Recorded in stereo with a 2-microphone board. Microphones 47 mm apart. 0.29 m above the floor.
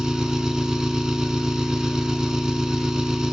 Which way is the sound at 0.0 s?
15° right (ahead or behind).